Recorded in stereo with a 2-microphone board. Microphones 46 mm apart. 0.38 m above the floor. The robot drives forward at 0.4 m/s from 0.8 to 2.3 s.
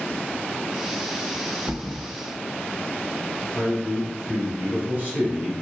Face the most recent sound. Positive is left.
turn(degrees=-35)  # may be behind; listen again after turning